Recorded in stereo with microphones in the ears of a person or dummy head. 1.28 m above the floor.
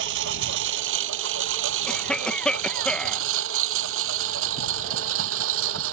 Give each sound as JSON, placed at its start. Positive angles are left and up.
{"t": 0.0, "sound": "a lawn mower", "side_deg": -70}
{"t": 1.9, "sound": "a cough", "side_deg": 5}